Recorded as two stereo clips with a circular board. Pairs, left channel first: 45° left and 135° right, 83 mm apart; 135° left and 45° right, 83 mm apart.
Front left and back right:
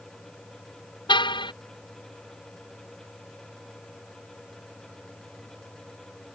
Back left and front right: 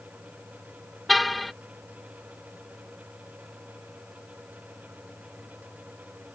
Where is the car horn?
45° left.